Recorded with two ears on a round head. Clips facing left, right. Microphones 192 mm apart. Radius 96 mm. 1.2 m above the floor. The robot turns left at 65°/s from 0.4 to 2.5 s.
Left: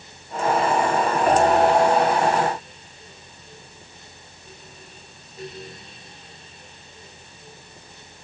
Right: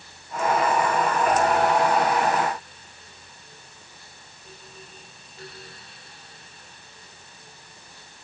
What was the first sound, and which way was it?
Only background noise.